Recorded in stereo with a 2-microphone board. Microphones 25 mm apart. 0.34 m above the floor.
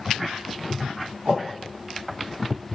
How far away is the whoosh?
About 1.7 m.